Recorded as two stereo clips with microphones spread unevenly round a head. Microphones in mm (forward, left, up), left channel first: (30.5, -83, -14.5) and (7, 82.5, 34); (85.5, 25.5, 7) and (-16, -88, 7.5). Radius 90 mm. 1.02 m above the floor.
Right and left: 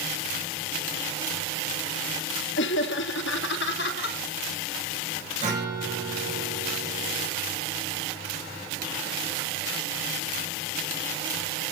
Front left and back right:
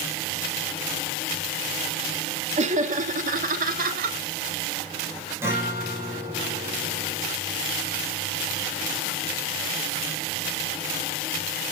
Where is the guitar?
150° left, 4 m.